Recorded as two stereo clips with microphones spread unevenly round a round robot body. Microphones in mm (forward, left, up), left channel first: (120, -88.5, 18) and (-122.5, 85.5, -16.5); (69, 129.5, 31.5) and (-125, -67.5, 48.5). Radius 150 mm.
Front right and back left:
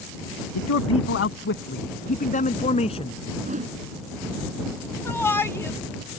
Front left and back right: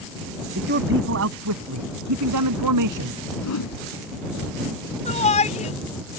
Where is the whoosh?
75° left.